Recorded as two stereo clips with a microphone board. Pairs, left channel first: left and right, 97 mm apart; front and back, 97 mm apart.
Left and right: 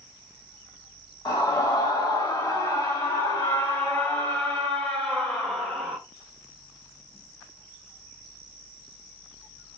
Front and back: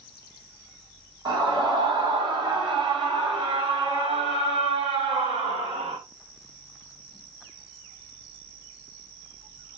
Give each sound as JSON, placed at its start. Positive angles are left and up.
{"t": 1.2, "sound": "a scream", "azimuth_deg": 135, "distance_m": 5.0}